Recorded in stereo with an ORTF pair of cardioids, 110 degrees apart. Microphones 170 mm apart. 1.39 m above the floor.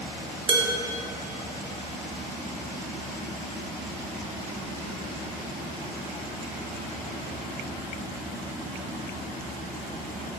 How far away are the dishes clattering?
About 2.5 m.